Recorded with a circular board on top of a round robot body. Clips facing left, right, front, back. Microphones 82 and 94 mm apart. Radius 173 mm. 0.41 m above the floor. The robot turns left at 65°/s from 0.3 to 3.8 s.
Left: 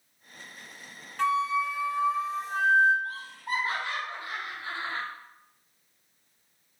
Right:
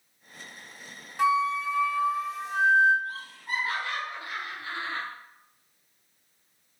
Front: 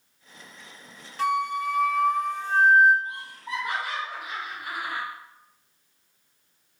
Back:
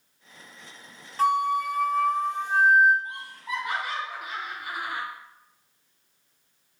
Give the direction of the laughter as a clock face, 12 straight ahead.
9 o'clock.